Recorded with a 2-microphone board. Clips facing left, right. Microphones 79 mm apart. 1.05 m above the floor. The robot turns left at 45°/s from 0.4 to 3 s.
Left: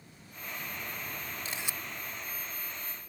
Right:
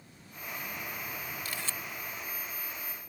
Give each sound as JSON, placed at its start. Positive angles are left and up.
{"t": 1.4, "sound": "a camera shutter", "side_deg": 25}